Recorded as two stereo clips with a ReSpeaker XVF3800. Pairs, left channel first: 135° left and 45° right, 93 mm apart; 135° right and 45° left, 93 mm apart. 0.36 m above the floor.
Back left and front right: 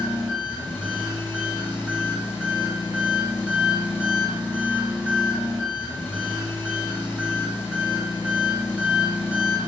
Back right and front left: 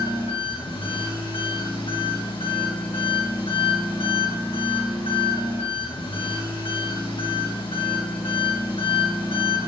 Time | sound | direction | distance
0.0 | an engine running | 125° right | 1.9 m